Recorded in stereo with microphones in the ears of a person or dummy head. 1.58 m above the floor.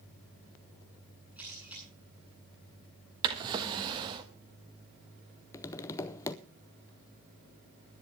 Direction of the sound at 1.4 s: 10° right (ahead or behind).